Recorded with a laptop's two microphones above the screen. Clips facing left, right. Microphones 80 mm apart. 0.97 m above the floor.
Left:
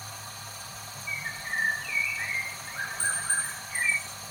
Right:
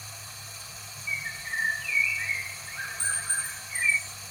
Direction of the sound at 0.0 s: 50° left (ahead or behind).